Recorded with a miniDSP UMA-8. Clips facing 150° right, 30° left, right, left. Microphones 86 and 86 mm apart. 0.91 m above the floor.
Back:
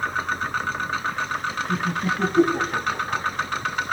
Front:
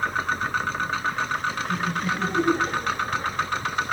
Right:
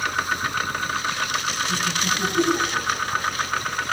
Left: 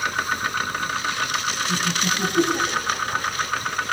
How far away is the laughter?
About 7.5 m.